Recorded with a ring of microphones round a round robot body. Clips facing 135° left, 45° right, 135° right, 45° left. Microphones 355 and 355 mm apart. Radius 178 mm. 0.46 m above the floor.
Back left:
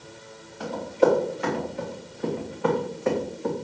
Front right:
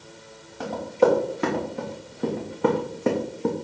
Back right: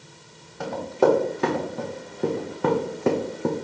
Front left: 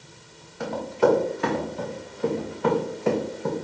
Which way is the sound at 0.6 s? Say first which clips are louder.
Front right 1 dB, back right 1 dB; 85° right.